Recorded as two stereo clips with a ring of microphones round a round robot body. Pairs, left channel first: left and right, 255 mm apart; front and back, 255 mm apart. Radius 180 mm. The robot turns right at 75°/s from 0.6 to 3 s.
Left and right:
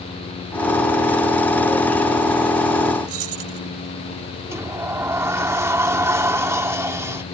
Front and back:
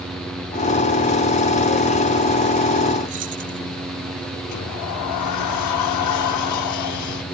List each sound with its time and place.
3.1 s keys jangling: 120° right
4.5 s a sliding door: 10° right